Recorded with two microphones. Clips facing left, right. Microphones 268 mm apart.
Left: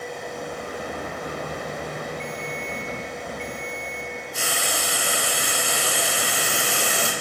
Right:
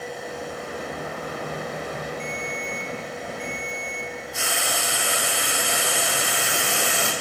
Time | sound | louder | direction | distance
2.2 | a ringtone | even | centre (ahead or behind) | 0.8 m
4.3 | frying | left 1 dB | 40° left (ahead or behind) | 0.8 m